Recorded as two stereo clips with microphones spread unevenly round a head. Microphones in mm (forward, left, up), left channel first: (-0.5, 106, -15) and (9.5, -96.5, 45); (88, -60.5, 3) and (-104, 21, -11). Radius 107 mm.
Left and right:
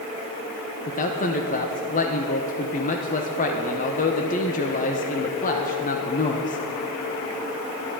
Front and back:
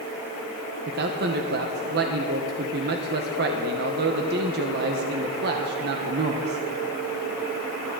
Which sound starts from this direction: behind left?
A man speaking, at 0.9 s.